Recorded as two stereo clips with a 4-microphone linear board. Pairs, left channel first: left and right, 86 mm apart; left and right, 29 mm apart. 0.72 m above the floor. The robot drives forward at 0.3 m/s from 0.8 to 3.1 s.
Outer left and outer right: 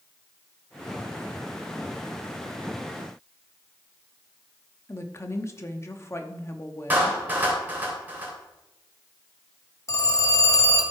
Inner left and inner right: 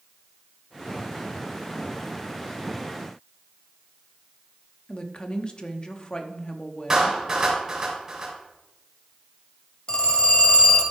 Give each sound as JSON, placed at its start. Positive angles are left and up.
{"t": 4.9, "sound": "a woman speaking", "side_deg": 30, "distance_m": 1.0}
{"t": 6.9, "sound": "a clap", "side_deg": -20, "distance_m": 3.0}
{"t": 9.9, "sound": "a phone ringing", "side_deg": 40, "distance_m": 1.8}